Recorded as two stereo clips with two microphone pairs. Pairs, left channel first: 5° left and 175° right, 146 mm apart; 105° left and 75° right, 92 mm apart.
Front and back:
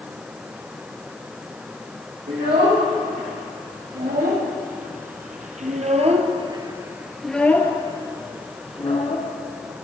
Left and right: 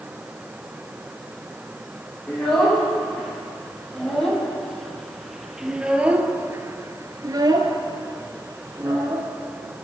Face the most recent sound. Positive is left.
turn(degrees=-30)